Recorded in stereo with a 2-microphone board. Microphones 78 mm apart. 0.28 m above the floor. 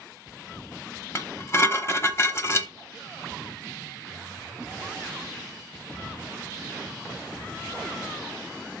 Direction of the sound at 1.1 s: 35° left (ahead or behind).